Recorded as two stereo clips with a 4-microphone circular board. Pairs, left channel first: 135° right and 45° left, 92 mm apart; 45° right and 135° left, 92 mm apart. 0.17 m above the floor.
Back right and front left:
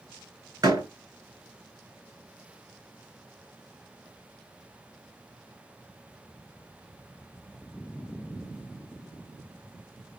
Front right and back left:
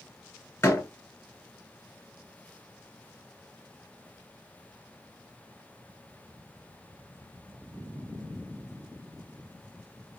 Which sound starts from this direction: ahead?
A door slam, at 0.6 s.